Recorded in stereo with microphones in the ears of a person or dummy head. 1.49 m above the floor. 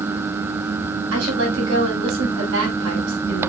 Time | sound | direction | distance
1.1 | a woman speaking | 70° right (ahead or behind) | 6.5 m